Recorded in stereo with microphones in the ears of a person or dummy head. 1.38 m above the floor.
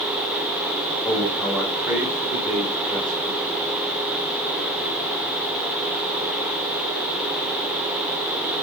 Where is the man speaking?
10° left (ahead or behind), 2 m; by 3.7 s 20° right (ahead or behind), 4.5 m.